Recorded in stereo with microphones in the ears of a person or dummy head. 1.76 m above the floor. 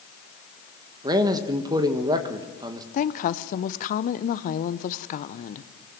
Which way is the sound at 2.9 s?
45° left (ahead or behind).